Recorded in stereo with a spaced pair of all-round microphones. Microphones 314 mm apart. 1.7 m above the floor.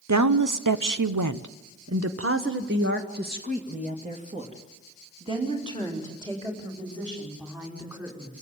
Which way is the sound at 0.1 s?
60° right (ahead or behind).